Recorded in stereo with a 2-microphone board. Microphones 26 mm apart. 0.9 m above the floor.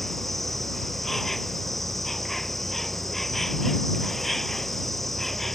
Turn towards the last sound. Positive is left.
turn(degrees=10)  # may be behind; listen again after turning